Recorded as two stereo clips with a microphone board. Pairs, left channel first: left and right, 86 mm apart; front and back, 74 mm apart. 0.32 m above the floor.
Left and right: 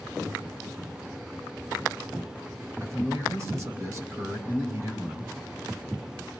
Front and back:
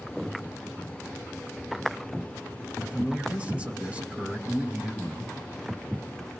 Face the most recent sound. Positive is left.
turn(degrees=-120)